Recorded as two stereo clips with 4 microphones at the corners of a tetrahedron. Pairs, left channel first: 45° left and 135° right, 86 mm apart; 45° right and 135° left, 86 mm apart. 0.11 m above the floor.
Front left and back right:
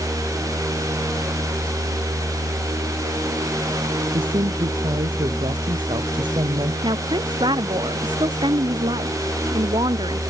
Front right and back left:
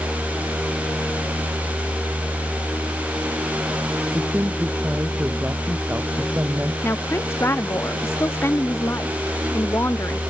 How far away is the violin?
No violin in this recording.